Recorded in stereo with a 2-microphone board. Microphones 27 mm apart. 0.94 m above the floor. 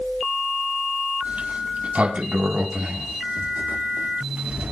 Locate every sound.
1.2 s a sliding door: 55° right (ahead or behind), 2.0 m